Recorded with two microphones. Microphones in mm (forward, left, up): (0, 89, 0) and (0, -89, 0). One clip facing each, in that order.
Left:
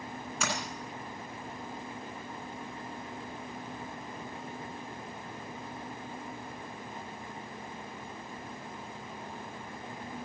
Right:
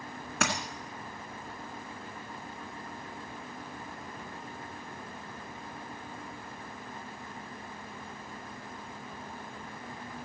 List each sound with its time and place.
0.4 s a dropped coin: 75° right (ahead or behind), 1.9 m